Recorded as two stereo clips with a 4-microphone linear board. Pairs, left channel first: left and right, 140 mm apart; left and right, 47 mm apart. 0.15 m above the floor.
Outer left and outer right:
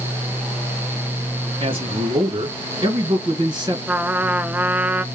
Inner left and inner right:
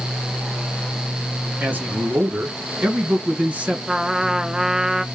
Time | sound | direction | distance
1.6 | a man speaking | 45° right (ahead or behind) | 2.5 m
3.9 | a trumpet | 10° right (ahead or behind) | 0.5 m